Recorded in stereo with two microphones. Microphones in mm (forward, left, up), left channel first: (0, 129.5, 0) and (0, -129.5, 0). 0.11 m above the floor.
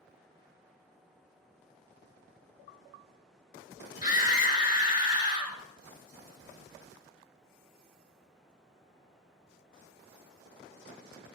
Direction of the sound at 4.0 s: 30° left (ahead or behind).